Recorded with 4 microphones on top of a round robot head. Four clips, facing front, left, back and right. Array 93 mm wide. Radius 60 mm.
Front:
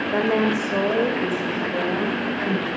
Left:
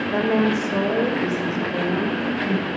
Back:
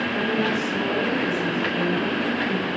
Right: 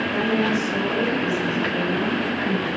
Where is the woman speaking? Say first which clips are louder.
Left 3 dB, front 6 dB; 40° left, 2.5 m; by 2.7 s 20° left, 4 m.